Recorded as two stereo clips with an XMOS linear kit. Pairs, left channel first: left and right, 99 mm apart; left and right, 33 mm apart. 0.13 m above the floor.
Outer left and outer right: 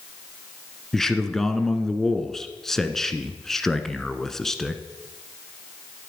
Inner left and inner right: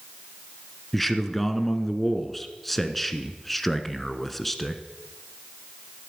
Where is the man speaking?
5° left (ahead or behind), 1.2 m.